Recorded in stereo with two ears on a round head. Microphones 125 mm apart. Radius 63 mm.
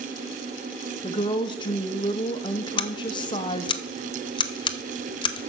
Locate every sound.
1.0 s a woman speaking: 35° left (ahead or behind), 0.8 m
2.8 s scissors: 35° left (ahead or behind), 0.7 m